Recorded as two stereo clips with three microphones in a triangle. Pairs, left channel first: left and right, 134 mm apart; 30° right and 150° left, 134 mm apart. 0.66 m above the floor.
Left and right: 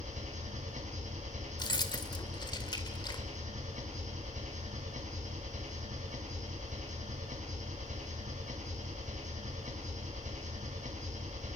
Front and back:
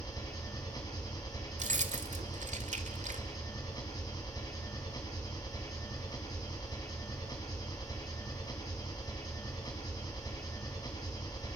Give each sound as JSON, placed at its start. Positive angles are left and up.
{"t": 0.0, "sound": "an engine running", "azimuth_deg": -90, "distance_m": 5.0}
{"t": 1.6, "sound": "keys jangling", "azimuth_deg": 140, "distance_m": 1.6}